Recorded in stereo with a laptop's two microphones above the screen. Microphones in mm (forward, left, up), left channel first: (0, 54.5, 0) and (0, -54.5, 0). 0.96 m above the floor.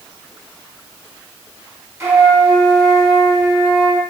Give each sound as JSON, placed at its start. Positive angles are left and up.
{"t": 2.0, "sound": "a flute", "side_deg": -25, "distance_m": 0.8}